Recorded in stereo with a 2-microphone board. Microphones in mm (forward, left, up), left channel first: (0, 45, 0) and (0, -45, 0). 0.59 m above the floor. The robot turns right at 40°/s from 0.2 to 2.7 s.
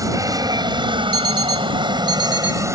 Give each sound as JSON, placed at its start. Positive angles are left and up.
{"t": 0.0, "sound": "an aircraft", "side_deg": -40}
{"t": 1.1, "sound": "an alarm clock", "azimuth_deg": 75}